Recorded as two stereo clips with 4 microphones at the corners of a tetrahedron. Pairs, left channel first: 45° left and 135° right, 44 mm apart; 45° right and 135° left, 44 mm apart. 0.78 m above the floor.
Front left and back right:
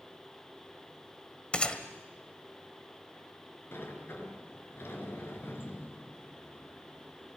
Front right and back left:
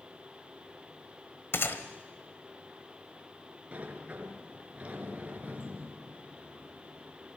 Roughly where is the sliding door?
Left.